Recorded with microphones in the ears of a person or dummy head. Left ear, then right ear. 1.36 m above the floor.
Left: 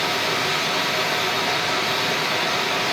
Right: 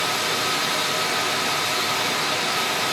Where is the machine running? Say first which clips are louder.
Left 1 dB; 10° right (ahead or behind), 3.5 m.